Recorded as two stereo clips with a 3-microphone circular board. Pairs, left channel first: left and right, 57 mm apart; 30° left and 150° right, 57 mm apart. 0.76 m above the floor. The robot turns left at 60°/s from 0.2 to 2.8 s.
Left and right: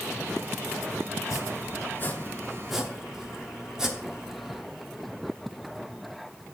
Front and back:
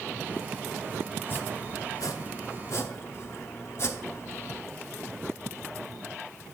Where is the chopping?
85° left, 0.8 m; by 4.6 s 10° right, 0.8 m.